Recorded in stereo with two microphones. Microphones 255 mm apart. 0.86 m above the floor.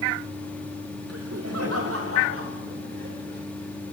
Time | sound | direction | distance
1.1 | laughter | 70° right (ahead or behind) | 2 m